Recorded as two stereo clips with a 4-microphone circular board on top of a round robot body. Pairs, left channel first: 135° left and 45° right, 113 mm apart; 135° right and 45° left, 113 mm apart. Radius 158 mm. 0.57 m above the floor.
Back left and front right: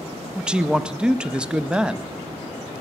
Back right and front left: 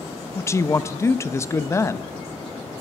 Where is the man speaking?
115° right, 0.6 m.